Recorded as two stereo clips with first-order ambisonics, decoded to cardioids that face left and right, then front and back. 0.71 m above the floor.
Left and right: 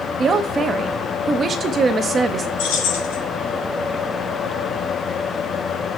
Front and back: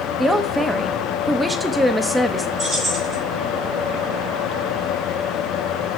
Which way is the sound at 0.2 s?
100° right.